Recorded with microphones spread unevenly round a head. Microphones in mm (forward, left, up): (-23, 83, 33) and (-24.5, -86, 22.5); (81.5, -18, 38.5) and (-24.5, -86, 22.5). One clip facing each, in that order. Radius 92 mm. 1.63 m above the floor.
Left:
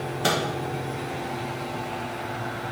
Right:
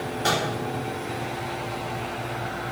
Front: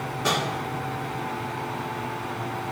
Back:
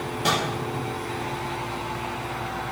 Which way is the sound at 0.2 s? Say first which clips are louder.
Left 1 dB, back 1 dB; 130° left.